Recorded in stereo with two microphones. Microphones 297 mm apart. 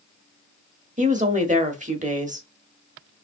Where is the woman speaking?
25° right (ahead or behind), 1.0 m.